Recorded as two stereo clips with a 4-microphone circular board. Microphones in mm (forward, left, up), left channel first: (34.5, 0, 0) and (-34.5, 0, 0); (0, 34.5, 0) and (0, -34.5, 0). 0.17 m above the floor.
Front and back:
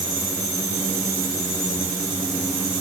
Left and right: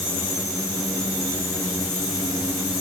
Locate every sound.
Only background noise.